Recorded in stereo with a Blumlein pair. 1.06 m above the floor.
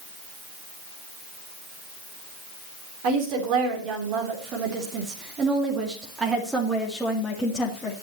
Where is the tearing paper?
I don't hear tearing paper.